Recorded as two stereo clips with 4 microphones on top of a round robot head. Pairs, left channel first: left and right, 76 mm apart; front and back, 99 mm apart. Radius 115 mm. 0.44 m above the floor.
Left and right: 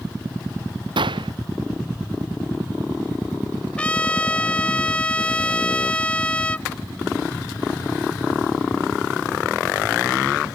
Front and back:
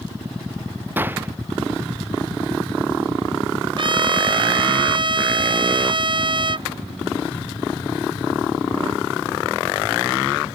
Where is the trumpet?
160° left.